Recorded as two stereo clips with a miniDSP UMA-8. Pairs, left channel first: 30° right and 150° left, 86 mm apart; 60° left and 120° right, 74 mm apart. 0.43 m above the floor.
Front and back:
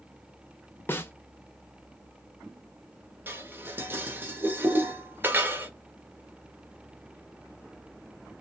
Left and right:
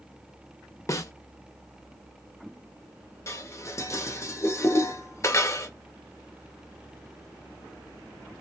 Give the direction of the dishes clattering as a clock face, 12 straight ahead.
9 o'clock.